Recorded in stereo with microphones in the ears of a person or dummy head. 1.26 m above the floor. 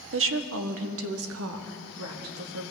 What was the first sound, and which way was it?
A woman speaking, 60° right (ahead or behind).